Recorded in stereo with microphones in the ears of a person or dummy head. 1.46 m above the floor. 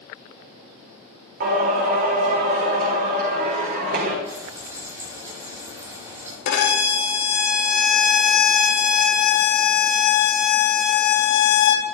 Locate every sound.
1.4 s singing: 55° right (ahead or behind), 4 m
4.2 s frying: 10° right (ahead or behind), 8 m
6.5 s a violin: 60° left (ahead or behind), 2 m